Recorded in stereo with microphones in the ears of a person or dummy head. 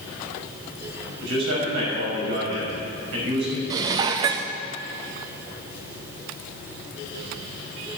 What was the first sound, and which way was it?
A man speaking, 70° right (ahead or behind).